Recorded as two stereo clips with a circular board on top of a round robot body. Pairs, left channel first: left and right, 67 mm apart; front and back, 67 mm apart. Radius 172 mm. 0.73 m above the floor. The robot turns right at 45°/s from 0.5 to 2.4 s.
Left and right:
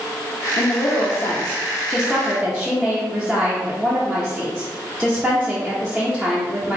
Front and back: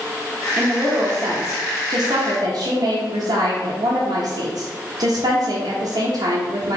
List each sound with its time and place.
0.6 s a woman speaking: 100° left, 0.8 m; by 6.8 s 175° right, 0.8 m